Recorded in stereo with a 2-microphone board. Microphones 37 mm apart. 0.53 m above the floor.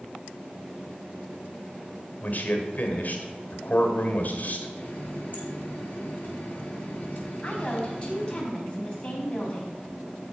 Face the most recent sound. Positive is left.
turn(degrees=30)  # may be behind; listen again after turning